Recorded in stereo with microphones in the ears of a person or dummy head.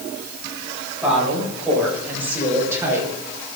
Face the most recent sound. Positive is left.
turn(degrees=-15)  # may be behind; listen again after turning